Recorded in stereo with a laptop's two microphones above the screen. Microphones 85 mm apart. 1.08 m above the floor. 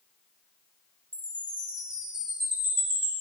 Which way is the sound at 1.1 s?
80° right.